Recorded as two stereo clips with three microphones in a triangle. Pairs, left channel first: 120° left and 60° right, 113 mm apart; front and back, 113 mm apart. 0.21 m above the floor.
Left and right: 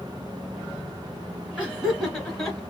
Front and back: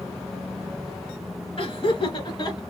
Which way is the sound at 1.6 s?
20° left.